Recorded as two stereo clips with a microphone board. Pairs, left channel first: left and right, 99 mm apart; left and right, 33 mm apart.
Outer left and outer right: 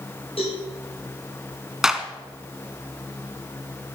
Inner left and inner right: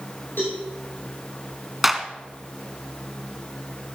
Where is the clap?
5° right (ahead or behind), 1.4 m.